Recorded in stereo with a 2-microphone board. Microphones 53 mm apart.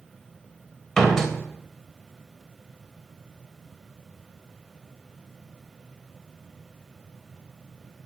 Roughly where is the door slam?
Centre.